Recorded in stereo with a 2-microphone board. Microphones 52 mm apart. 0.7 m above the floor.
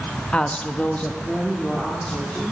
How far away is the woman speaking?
About 0.7 m.